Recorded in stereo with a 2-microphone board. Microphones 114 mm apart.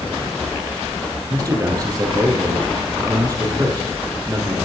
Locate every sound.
1.3 s a man speaking: 35° right (ahead or behind), 3.5 m